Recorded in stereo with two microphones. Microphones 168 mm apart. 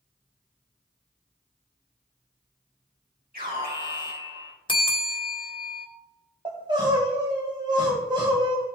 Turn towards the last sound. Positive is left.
turn(degrees=-25)  # may be behind; listen again after turning